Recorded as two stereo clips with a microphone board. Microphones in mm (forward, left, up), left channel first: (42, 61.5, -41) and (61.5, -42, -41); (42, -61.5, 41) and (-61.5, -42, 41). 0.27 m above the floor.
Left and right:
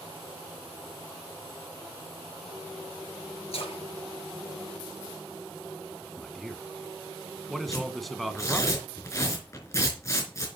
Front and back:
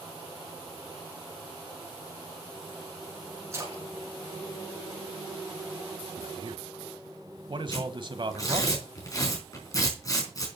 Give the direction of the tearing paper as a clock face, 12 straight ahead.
11 o'clock.